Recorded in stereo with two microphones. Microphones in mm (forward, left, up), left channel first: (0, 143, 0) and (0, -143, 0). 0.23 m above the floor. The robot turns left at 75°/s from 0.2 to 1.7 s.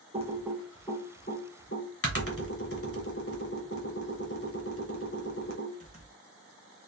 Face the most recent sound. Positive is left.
turn(degrees=50)  # may be behind; listen again after turning